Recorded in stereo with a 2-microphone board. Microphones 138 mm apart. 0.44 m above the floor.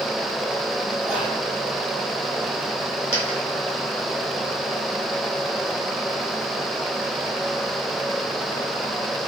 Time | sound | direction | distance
1.0 | whispering | 10° right (ahead or behind) | 1.6 m
3.1 | a dropped coin | 50° left (ahead or behind) | 1.4 m